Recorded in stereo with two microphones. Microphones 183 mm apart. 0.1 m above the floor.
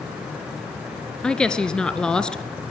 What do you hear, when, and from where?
1.2 s a woman speaking: 5° left (ahead or behind), 1.2 m